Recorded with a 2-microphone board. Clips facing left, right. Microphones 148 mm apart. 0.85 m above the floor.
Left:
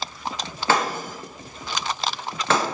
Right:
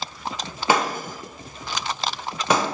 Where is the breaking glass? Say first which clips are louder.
Right 1 dB; 15° right (ahead or behind), 0.7 m.